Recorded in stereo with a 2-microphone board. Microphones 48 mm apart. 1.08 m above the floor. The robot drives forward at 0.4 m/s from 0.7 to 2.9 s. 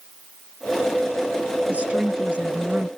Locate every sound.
1.7 s a woman speaking: 25° right (ahead or behind)